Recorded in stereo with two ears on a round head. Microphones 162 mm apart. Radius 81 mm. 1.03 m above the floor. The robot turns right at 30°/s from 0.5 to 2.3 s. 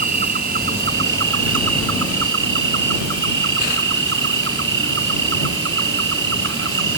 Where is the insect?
130° right; by 7.0 s 75° right.